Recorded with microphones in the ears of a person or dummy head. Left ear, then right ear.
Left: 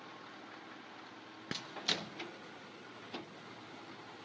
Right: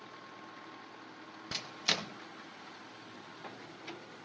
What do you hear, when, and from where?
1.5 s a microwave: 30° right (ahead or behind), 0.9 m